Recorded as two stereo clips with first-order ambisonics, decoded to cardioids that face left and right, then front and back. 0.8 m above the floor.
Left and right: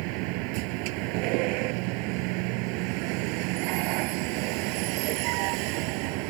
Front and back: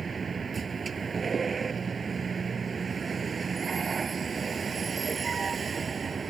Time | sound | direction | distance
0.0 | a vehicle | 105° right | ?